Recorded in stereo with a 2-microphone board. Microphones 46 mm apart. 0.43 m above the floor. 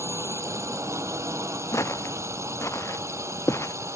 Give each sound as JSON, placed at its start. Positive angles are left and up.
{"t": 0.0, "sound": "a drone", "side_deg": -85}
{"t": 1.7, "sound": "footsteps", "side_deg": 90}